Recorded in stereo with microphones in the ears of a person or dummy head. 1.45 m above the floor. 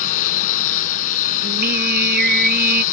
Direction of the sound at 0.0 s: 50° left (ahead or behind).